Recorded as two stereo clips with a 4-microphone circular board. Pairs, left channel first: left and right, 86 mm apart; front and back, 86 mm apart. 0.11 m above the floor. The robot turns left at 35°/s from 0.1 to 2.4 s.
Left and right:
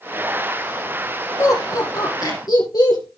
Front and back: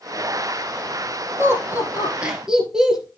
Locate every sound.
1.4 s laughter: 135° left, 1.9 m; by 3.1 s 100° left, 1.9 m